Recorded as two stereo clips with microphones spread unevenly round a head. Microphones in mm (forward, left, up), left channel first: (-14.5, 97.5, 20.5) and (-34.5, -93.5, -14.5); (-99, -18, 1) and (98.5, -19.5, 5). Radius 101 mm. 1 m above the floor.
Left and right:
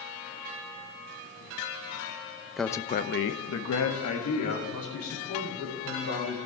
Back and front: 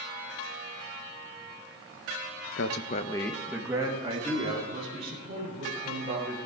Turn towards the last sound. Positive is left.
turn(degrees=60)